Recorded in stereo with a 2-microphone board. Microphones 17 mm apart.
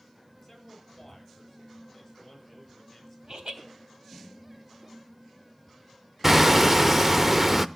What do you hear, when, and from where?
0.4 s a man speaking: 5° left (ahead or behind), 8 m
3.3 s laughter: 60° right (ahead or behind), 3 m
6.2 s hammering: 20° right (ahead or behind), 0.7 m